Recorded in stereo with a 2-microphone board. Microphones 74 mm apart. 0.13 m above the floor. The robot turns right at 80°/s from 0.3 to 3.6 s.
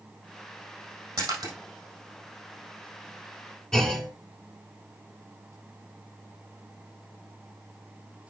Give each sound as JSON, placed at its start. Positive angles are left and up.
{"t": 1.2, "sound": "a splash", "side_deg": -55, "distance_m": 4.0}
{"t": 3.7, "sound": "a clunk", "side_deg": 10, "distance_m": 1.2}